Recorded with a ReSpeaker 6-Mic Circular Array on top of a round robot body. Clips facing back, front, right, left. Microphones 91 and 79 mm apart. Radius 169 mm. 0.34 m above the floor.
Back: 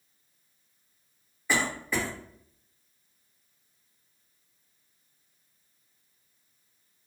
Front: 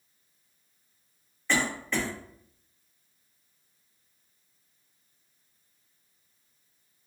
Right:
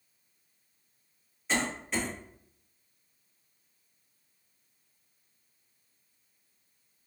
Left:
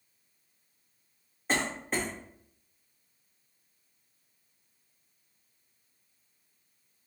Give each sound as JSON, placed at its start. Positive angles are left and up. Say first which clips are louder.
{"t": 1.5, "sound": "a cough", "louder": "even, left 1 dB", "azimuth_deg": 105, "distance_m": 1.5}